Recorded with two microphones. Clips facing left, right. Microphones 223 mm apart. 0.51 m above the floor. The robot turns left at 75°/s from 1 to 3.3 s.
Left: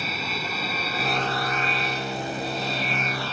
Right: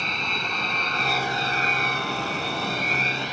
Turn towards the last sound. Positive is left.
turn(degrees=-165)